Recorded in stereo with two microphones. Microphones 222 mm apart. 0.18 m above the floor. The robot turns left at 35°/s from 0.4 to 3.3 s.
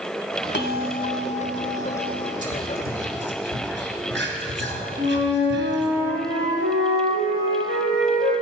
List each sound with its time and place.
0.5 s a bell: 70° left, 0.6 m; by 2.3 s 5° left, 0.6 m
2.4 s whispering: 35° right (ahead or behind), 3 m; by 5.9 s 55° right (ahead or behind), 3 m
5.0 s a flute: 60° right (ahead or behind), 4 m